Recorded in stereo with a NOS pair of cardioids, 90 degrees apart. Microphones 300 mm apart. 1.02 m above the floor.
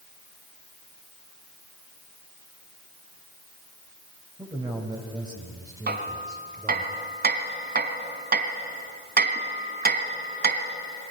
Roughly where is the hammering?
Ahead right.